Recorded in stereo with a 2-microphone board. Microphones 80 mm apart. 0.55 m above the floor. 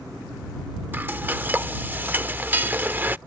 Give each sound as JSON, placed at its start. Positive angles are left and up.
{"t": 0.9, "sound": "frying", "side_deg": -25}